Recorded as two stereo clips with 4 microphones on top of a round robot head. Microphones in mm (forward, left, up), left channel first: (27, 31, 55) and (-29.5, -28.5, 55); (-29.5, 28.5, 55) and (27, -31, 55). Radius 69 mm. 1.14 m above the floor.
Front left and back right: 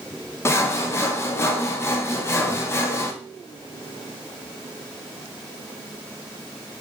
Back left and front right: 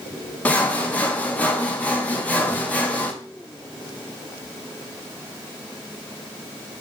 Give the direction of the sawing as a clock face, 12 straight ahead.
10 o'clock.